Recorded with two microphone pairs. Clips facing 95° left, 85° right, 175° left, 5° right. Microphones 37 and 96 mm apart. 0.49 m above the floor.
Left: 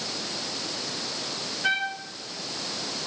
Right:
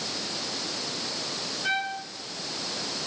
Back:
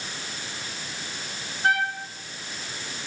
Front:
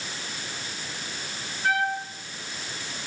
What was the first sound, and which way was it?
A trumpet, 140° left.